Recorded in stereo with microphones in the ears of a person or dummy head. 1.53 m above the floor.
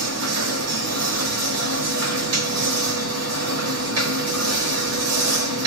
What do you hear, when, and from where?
0.0 s a machine running: 75° right (ahead or behind), 1.0 m